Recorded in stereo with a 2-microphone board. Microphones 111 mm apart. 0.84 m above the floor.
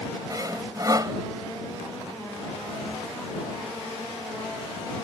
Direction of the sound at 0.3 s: 35° right (ahead or behind).